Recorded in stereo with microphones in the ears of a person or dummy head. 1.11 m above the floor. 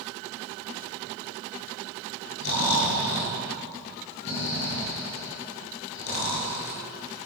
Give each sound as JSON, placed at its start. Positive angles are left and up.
{"t": 2.4, "sound": "snoring", "side_deg": 65, "distance_m": 9.0}